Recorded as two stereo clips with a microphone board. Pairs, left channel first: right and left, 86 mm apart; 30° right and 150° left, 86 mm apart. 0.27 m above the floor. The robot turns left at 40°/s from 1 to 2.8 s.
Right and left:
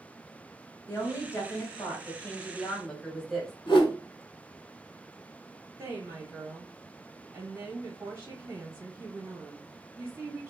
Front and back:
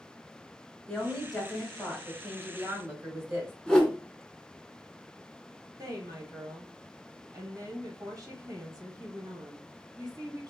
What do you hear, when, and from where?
0.9 s a woman speaking: 100° right, 1.4 m; by 3.5 s 175° right, 1.4 m
3.7 s a whoosh: 110° right, 0.7 m
5.8 s a woman speaking: 135° left, 1.4 m